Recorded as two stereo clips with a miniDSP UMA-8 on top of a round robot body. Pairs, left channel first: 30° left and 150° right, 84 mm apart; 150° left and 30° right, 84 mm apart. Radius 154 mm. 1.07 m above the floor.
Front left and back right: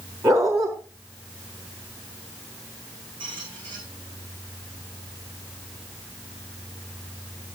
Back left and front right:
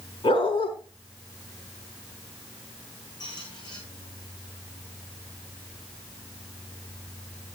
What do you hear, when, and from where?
0.2 s a dog barking: 160° left, 4.5 m
3.2 s a squeak: 170° right, 8 m